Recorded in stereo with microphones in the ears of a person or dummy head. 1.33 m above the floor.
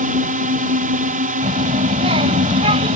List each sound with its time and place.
0.0 s a drone: 35° right (ahead or behind)
1.4 s a child speaking: 30° right (ahead or behind)